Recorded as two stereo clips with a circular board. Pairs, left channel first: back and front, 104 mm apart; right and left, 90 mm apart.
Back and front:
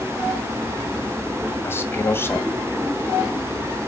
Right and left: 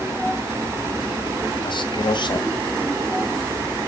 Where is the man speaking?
115° right, 2 m.